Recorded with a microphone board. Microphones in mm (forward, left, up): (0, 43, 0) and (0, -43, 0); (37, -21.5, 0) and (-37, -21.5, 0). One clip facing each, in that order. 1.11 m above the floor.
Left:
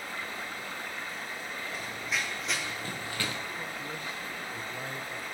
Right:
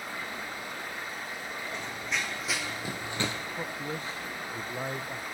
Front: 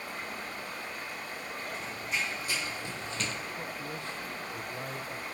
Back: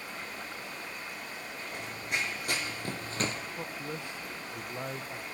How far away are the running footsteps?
About 3 m.